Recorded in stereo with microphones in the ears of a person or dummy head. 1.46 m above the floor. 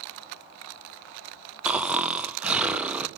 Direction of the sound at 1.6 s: Centre (ahead or behind).